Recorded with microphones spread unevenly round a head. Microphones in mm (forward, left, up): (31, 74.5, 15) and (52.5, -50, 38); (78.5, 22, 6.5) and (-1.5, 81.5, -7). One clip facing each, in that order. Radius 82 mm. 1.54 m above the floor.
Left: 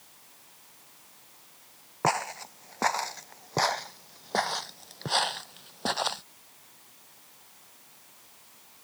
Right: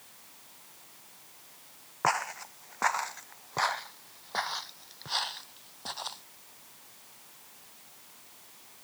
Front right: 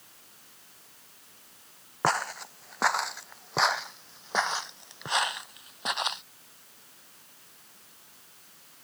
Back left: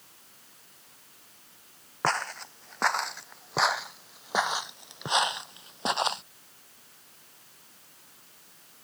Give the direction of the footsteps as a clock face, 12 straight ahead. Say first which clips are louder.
Left 2 dB, front right 1 dB; 11 o'clock.